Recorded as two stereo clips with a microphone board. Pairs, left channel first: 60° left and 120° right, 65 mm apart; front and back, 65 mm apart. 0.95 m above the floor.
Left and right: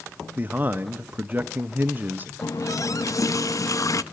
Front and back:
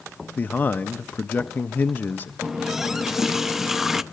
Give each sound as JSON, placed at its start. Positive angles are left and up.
{"t": 0.4, "sound": "a man speaking", "azimuth_deg": -60, "distance_m": 0.6}
{"t": 2.4, "sound": "a running tap", "azimuth_deg": 95, "distance_m": 0.6}